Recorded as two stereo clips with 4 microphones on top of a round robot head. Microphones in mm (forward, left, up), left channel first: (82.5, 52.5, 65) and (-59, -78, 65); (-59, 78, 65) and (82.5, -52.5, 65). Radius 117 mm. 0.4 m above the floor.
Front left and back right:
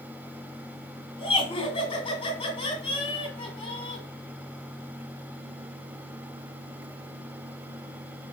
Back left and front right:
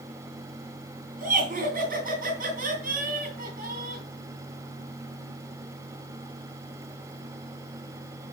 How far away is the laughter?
About 2 m.